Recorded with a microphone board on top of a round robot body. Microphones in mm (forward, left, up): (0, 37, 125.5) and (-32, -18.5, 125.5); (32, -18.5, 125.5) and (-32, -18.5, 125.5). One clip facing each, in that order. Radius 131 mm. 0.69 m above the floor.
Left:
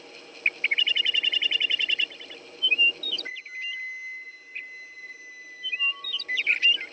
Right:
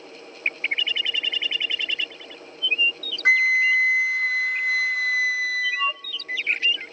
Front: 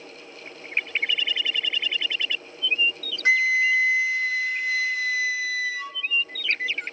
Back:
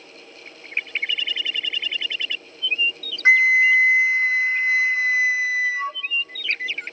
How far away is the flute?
About 0.5 m.